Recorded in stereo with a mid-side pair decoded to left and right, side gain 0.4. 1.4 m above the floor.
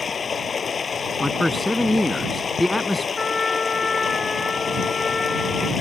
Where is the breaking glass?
No breaking glass in this recording.